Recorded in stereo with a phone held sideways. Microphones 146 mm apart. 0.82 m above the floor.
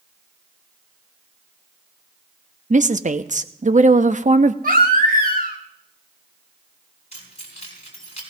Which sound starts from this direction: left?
Keys jangling, at 7.1 s.